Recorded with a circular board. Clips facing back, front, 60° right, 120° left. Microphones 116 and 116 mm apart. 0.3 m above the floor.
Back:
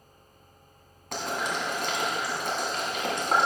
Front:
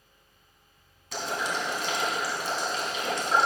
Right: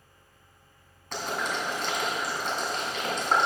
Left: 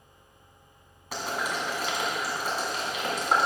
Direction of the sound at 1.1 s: 160° right.